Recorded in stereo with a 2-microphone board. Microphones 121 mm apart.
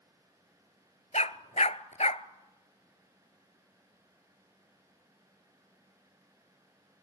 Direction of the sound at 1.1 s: 75° left (ahead or behind).